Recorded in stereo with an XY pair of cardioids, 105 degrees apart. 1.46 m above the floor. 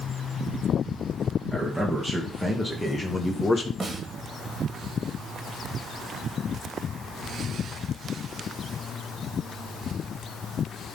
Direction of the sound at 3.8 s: 25° right.